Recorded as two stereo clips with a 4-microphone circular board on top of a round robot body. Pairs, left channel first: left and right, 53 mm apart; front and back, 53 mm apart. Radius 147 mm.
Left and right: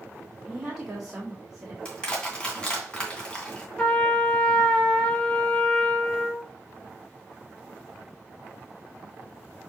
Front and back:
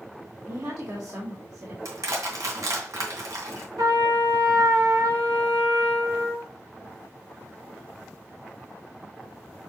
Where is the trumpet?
165° left, 2 m.